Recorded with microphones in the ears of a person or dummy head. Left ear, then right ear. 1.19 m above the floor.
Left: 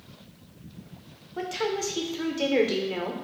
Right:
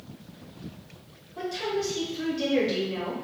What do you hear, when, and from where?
1.4 s a woman speaking: 40° left (ahead or behind), 0.7 m